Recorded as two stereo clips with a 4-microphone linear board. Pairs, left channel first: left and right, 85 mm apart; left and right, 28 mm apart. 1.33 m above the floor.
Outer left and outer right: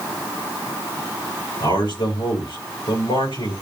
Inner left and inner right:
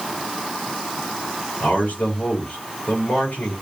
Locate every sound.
1.6 s a man speaking: 85° left, 4 m